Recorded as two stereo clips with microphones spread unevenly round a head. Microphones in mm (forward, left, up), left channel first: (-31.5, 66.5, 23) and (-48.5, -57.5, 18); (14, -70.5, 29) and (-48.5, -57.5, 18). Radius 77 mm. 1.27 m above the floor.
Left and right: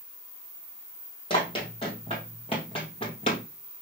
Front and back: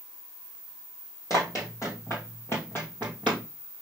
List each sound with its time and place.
1.3 s running footsteps: 30° left, 2.5 m; by 3.4 s 55° left, 1.7 m